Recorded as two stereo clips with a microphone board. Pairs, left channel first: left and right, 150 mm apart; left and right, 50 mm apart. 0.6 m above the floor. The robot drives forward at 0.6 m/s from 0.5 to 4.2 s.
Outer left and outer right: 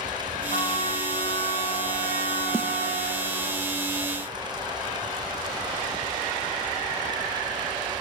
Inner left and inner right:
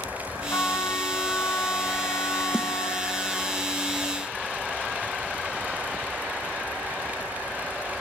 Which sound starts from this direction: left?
A trumpet, at 0.5 s.